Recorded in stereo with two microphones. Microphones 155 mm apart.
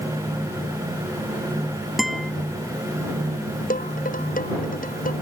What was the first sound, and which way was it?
A guitar, centre (ahead or behind).